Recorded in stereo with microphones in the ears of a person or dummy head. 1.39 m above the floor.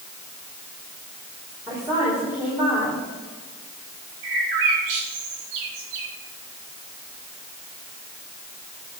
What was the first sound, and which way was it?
A woman speaking, 15° right (ahead or behind).